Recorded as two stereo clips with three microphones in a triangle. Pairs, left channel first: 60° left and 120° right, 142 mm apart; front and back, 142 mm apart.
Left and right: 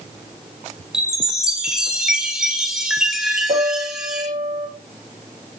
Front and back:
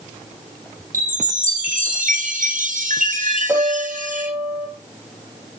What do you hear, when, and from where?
0.9 s a chime: 155° left, 2.5 m
3.5 s a piano: 100° right, 6 m